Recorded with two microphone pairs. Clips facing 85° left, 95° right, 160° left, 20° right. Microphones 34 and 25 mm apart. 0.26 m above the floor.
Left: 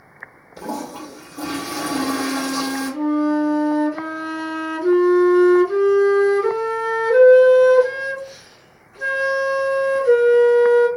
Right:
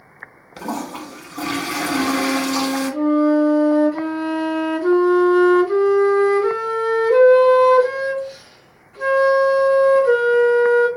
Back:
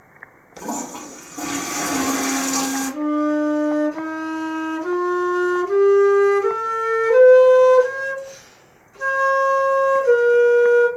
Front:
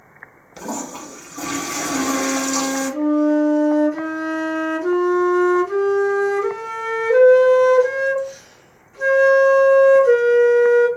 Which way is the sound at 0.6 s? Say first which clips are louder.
Right 2 dB, even; 105° right.